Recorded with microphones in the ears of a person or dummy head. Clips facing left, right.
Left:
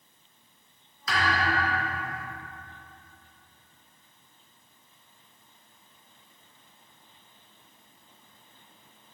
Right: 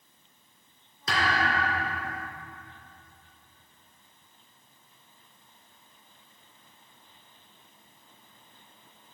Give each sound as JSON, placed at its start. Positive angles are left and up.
{"t": 1.1, "sound": "a thud", "side_deg": -35, "distance_m": 3.0}